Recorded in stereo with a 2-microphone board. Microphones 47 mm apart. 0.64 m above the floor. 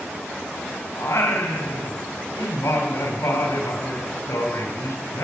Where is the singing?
75° left (ahead or behind), 4 m.